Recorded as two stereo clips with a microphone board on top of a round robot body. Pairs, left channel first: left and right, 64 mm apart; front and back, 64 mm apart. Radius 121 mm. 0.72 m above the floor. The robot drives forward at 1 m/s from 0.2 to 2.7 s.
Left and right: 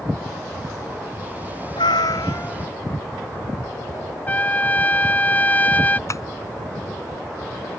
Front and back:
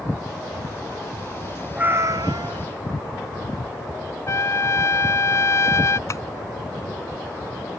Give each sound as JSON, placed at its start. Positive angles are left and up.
{"t": 1.8, "sound": "a cat meowing", "azimuth_deg": 100}
{"t": 4.3, "sound": "a trumpet", "azimuth_deg": 30}
{"t": 6.1, "sound": "tapping", "azimuth_deg": 50}